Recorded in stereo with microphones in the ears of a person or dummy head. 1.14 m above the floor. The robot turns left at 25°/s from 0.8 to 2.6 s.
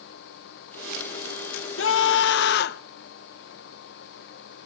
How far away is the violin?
I don't hear a violin.